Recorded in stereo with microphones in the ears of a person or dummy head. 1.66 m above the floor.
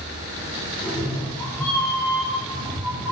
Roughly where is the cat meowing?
Left.